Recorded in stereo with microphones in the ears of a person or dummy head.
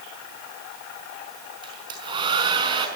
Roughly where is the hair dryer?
Right.